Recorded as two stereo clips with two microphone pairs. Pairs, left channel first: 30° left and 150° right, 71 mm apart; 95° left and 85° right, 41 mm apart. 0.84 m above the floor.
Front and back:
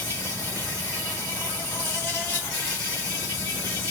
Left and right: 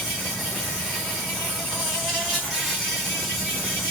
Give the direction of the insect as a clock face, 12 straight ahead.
1 o'clock.